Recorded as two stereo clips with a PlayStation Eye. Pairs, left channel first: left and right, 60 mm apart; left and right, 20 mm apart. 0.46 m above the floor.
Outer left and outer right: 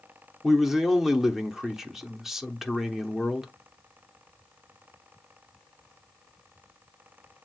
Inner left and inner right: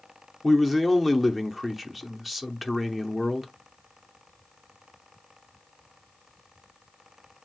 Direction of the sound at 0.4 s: 5° right (ahead or behind).